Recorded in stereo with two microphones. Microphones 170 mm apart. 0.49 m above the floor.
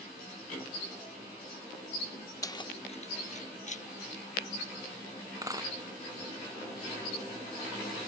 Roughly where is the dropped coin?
Right.